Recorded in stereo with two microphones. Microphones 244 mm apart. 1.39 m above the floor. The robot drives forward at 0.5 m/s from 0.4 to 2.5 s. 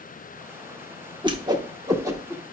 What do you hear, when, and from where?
1.2 s a whoosh: 20° right (ahead or behind), 0.9 m; by 2.4 s 10° right (ahead or behind), 1.5 m